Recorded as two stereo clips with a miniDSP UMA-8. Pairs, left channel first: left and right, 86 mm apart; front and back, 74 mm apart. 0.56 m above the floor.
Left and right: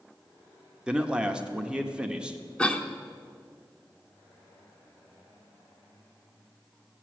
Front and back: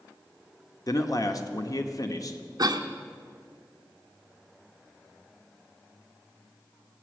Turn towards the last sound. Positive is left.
turn(degrees=170)